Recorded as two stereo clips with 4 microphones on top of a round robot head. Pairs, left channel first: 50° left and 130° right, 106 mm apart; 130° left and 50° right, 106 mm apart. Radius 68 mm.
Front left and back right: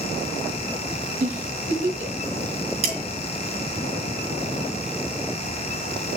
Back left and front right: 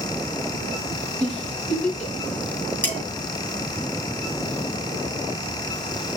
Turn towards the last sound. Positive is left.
turn(degrees=-155)